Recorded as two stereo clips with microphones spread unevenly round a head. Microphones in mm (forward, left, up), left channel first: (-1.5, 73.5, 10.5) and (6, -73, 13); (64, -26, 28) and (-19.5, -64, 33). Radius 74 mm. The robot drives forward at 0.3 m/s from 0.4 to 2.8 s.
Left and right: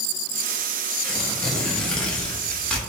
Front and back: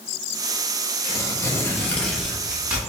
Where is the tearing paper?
5° left, 0.6 m; by 2.8 s 170° left, 0.6 m.